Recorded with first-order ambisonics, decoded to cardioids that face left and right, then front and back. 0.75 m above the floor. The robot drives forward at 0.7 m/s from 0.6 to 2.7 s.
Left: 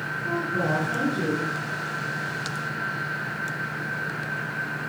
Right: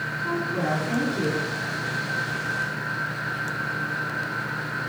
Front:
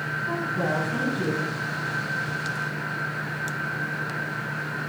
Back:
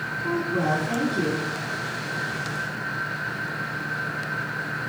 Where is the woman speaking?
175° right, 7 m.